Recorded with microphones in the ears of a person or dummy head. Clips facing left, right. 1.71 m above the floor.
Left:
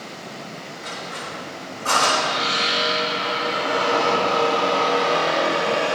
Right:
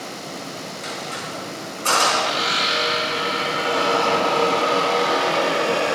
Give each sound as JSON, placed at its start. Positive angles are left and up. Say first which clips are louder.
{"t": 0.8, "sound": "a squeak", "louder": "right 1 dB", "side_deg": -40, "distance_m": 5.0}